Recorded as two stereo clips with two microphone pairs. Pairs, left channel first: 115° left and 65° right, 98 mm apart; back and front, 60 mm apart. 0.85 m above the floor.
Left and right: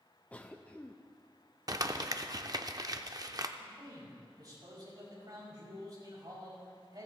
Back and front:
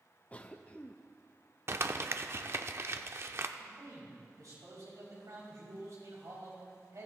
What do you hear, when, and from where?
0.3 s a cough: 175° left, 0.5 m
1.7 s crumpling: 25° right, 0.6 m
3.6 s a man speaking: 20° right, 4.5 m